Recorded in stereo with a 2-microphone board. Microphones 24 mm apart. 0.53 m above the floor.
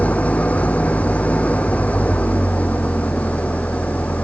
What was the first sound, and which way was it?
An engine running, 80° left.